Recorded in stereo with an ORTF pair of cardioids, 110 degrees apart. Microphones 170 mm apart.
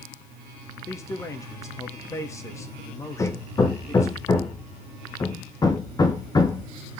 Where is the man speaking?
20° left, 2.5 m.